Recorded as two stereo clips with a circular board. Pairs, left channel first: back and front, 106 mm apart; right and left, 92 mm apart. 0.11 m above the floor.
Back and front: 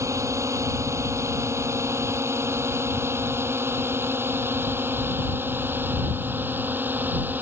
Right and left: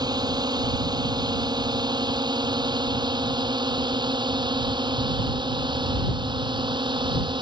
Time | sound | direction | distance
0.0 | a drone | 55° left | ?